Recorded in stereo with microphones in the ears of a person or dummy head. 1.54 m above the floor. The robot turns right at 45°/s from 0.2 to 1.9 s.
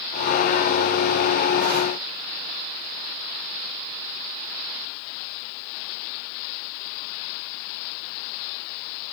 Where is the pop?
No pop in this recording.